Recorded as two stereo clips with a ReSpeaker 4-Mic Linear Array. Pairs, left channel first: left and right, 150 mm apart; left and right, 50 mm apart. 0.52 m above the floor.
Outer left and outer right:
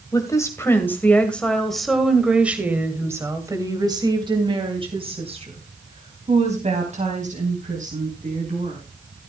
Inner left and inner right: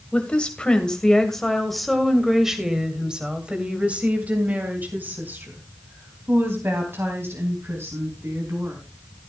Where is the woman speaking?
20° left (ahead or behind), 2.5 m; by 8.8 s 60° right (ahead or behind), 4.5 m.